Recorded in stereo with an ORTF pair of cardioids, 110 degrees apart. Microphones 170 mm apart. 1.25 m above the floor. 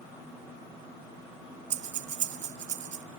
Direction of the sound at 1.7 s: 45° right.